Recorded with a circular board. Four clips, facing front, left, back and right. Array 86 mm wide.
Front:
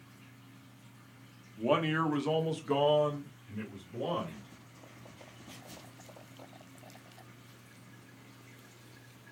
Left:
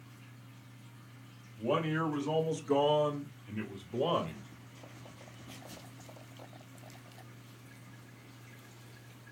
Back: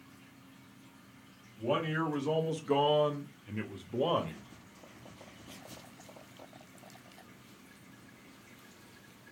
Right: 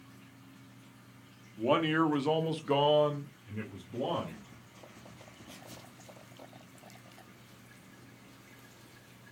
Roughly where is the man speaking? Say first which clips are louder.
Right 4 dB, front 3 dB; ahead right.